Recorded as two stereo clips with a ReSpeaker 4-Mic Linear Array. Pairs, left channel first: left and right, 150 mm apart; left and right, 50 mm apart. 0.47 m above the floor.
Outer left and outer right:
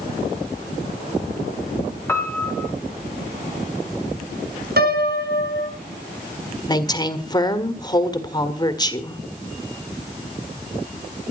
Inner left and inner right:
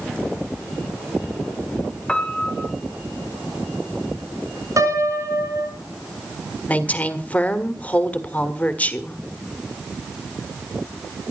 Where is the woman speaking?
25° left (ahead or behind), 1.7 m.